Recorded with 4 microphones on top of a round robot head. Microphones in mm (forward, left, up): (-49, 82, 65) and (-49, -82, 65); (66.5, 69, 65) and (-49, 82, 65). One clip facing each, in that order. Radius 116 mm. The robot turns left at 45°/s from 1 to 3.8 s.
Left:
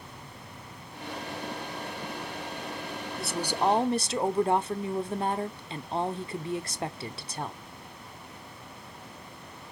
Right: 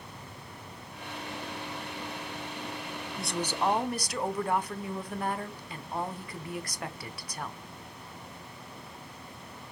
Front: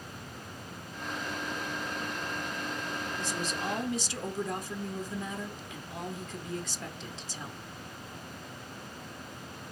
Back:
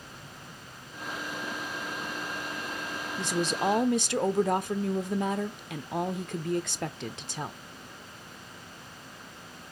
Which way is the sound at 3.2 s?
Straight behind.